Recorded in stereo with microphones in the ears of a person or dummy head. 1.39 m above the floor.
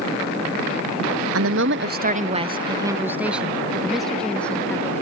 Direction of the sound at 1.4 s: 75° right (ahead or behind).